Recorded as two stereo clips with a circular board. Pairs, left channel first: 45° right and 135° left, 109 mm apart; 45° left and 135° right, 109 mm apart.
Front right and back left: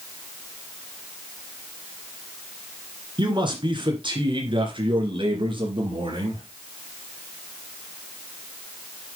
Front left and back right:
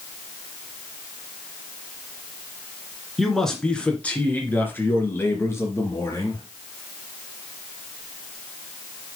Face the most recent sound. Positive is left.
turn(degrees=100)